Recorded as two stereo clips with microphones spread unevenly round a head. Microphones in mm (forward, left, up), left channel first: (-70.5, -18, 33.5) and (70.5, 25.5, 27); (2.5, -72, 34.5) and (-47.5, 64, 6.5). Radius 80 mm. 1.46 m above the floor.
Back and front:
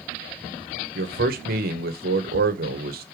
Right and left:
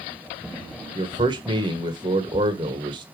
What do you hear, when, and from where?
0.9 s a man speaking: 45° left, 1.1 m